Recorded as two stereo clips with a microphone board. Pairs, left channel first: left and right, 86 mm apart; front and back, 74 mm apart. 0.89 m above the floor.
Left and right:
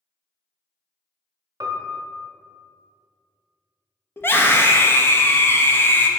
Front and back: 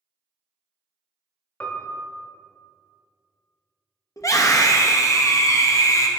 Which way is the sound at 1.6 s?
60° right.